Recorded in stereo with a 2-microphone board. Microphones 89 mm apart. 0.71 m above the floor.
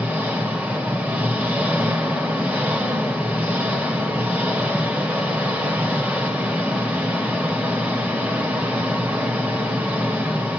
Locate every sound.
0.0 s an engine running: 15° right (ahead or behind), 2.5 m